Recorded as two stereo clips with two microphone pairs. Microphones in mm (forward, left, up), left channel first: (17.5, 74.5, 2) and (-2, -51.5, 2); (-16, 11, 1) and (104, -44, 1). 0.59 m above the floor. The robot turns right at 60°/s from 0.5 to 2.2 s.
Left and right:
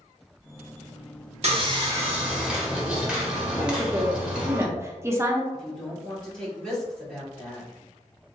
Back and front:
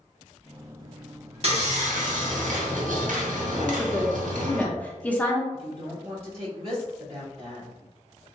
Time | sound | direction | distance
1.4 | sawing | 60° right | 0.8 m
3.6 | a woman speaking | 135° right | 0.6 m
5.5 | a woman speaking | straight ahead | 1.8 m